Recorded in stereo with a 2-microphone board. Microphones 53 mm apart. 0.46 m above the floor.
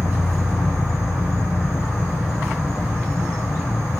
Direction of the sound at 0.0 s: 70° left (ahead or behind).